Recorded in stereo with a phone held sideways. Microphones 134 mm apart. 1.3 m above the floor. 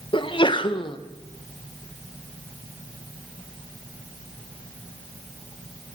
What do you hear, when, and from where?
0.1 s a sneeze: 40° left (ahead or behind), 0.9 m